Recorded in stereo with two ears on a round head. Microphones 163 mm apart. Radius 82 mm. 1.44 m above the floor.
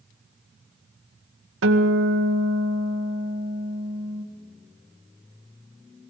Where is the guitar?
75° right (ahead or behind), 2 m.